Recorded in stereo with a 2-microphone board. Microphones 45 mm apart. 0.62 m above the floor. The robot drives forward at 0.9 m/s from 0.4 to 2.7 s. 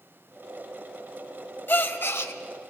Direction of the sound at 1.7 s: 50° left (ahead or behind).